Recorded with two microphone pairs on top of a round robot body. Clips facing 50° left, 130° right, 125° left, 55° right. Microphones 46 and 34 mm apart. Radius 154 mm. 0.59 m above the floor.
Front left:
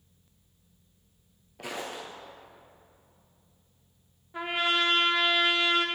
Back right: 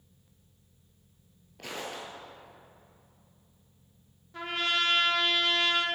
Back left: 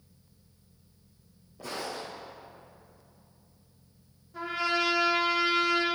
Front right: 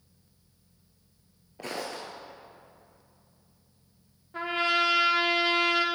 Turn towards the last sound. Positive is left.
turn(degrees=-20)